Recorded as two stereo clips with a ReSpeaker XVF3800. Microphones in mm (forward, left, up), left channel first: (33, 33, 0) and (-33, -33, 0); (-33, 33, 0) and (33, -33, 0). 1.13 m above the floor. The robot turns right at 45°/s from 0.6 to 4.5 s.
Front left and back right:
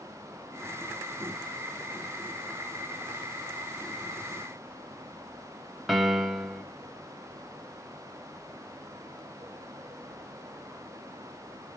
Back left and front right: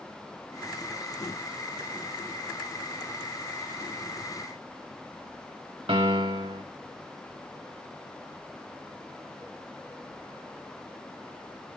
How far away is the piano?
About 0.8 m.